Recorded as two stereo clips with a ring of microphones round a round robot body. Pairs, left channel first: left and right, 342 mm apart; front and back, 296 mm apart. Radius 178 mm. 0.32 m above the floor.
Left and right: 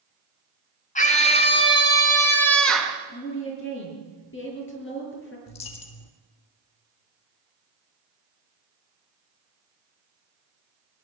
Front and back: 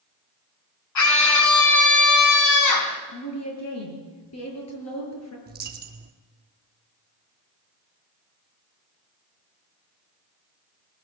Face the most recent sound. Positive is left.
turn(degrees=120)